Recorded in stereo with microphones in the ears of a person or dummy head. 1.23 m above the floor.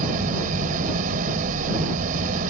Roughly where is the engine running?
Right.